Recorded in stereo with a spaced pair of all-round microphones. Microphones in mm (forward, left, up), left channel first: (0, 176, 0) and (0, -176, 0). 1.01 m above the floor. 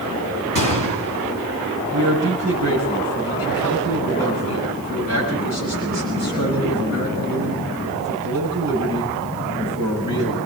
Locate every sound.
0.6 s a gunshot: 60° right (ahead or behind), 2 m
1.9 s a man speaking: 50° right (ahead or behind), 10 m